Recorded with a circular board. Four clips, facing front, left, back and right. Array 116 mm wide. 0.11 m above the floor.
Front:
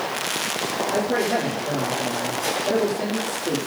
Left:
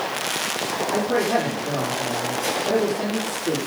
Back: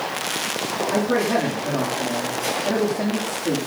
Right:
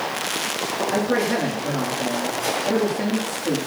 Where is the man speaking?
165° right, 9 m.